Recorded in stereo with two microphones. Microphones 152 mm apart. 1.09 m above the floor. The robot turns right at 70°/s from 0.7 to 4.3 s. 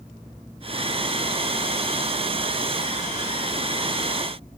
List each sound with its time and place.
Only background noise.